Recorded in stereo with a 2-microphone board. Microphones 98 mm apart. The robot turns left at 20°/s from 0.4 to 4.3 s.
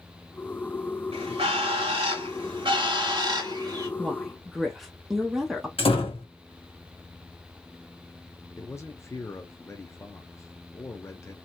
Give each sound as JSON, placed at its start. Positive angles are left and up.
{"t": 1.1, "sound": "a bird", "azimuth_deg": -90, "distance_m": 1.9}
{"t": 4.0, "sound": "a woman speaking", "side_deg": 0, "distance_m": 0.7}
{"t": 5.8, "sound": "a door slam", "side_deg": 70, "distance_m": 1.3}
{"t": 8.6, "sound": "a man speaking", "side_deg": 30, "distance_m": 0.8}